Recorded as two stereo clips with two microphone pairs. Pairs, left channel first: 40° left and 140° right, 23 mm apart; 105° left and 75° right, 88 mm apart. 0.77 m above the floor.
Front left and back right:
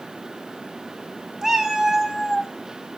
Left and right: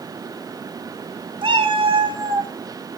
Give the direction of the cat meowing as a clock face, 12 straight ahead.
3 o'clock.